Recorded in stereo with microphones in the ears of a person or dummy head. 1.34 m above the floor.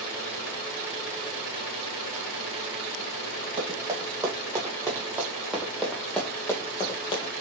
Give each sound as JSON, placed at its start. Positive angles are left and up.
{"t": 3.6, "sound": "running footsteps", "side_deg": -25, "distance_m": 3.0}